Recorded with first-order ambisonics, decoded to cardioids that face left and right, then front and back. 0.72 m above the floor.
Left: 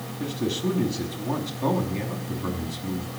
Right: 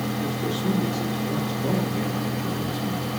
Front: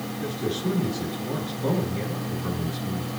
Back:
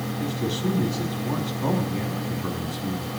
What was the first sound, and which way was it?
A man speaking, 125° left.